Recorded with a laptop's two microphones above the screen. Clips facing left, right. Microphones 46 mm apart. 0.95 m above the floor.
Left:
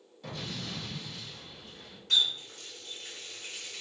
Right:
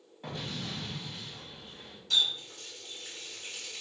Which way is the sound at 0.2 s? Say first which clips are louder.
Right 1 dB; 30° right (ahead or behind).